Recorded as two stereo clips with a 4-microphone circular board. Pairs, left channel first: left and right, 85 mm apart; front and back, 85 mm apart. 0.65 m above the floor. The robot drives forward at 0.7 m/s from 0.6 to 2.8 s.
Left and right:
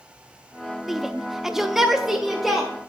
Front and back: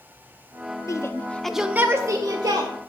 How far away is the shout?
About 0.7 m.